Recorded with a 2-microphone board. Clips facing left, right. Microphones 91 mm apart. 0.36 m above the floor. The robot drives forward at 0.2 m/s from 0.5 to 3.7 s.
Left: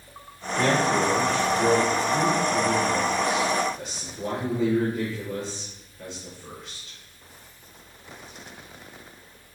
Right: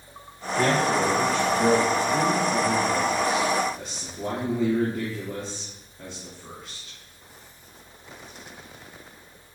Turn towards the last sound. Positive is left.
turn(degrees=-30)  # may be behind; listen again after turning